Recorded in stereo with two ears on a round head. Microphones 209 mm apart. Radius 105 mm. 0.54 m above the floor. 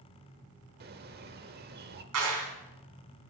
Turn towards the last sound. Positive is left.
turn(degrees=-70)  # may be behind; listen again after turning